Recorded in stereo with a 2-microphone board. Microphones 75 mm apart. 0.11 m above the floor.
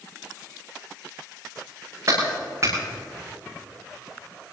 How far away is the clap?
About 7.5 m.